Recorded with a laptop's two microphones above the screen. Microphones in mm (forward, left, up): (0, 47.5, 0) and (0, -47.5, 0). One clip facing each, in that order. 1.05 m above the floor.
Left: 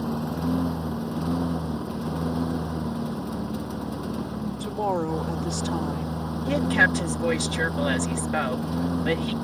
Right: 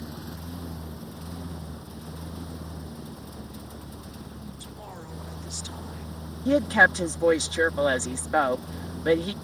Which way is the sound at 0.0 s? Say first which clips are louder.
Left 12 dB; 80° left.